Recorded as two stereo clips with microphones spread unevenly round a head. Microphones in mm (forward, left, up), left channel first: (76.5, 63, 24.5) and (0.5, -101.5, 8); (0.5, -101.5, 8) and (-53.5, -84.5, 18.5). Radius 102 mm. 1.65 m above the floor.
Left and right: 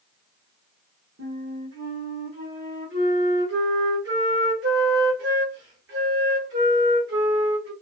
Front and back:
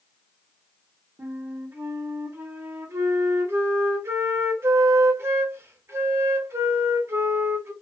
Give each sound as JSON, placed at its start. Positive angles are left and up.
{"t": 1.2, "sound": "a flute", "azimuth_deg": -155, "distance_m": 0.9}